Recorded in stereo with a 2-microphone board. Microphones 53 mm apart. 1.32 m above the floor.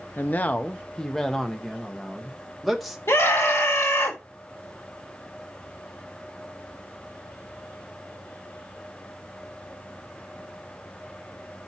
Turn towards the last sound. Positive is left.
turn(degrees=75)  # may be behind; listen again after turning